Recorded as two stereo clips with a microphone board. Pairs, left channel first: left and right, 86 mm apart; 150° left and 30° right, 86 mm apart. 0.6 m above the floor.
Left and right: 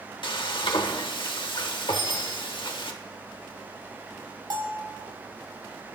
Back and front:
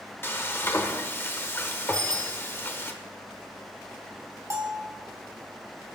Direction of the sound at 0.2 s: 90° left.